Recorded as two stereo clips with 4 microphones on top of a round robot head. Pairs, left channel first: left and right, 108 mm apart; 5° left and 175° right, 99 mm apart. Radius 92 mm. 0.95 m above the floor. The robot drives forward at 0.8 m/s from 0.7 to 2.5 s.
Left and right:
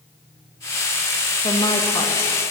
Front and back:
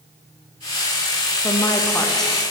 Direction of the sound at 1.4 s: 50° left.